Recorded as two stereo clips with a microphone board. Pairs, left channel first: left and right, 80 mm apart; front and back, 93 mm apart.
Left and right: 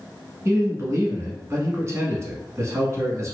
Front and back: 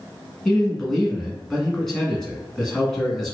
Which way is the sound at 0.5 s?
80° right.